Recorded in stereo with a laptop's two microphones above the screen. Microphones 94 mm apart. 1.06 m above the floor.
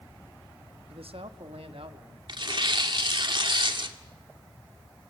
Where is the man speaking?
80° right, 1.2 m.